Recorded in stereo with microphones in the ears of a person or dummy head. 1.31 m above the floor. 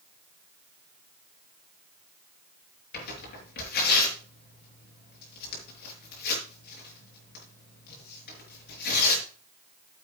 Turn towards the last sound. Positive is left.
turn(degrees=55)  # may be behind; listen again after turning